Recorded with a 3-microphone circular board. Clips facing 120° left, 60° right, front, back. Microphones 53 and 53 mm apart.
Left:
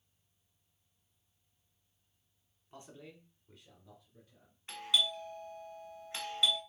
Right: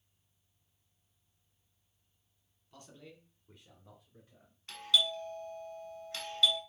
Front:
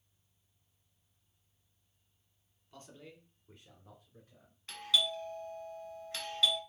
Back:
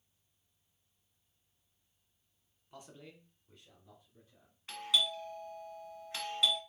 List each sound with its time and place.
2.7 s a man speaking: 135° left, 1.1 m; by 4.6 s 25° right, 1.8 m
4.7 s a doorbell: 135° left, 1.4 m